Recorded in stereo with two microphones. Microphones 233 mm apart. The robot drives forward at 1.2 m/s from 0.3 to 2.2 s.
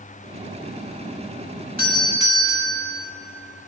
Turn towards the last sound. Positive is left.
turn(degrees=-45)  # may be behind; listen again after turning